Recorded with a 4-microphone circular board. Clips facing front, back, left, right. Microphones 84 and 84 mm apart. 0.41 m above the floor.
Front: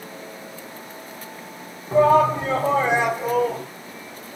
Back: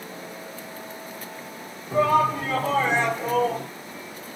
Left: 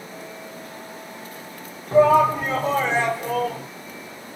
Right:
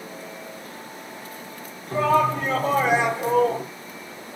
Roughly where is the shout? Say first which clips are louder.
Front 5 dB, left 5 dB; ahead left.